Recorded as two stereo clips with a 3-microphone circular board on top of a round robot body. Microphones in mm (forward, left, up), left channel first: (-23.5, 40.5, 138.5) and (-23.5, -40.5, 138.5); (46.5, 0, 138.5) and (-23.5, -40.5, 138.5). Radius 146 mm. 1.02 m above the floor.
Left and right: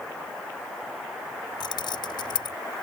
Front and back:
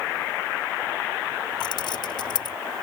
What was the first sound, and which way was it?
Keys jangling, 60° left.